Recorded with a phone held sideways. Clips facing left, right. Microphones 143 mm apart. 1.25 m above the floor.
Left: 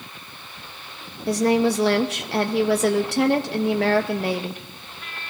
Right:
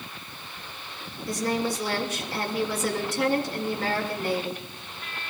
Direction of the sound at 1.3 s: 70° left (ahead or behind).